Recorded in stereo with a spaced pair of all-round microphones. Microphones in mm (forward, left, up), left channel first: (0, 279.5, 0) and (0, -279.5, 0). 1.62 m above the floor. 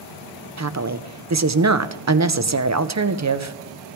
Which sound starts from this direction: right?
A woman speaking, at 0.6 s.